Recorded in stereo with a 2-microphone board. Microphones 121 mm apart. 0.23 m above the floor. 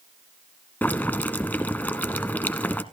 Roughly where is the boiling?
Centre.